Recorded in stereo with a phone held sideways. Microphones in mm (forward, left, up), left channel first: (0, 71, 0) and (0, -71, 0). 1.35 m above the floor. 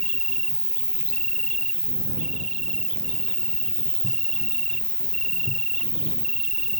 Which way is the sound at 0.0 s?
5° left (ahead or behind).